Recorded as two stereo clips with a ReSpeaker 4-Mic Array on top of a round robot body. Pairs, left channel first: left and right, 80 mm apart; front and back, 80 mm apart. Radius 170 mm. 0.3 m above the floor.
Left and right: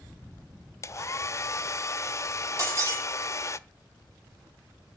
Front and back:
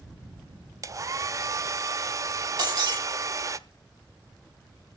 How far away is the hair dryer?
About 0.9 m.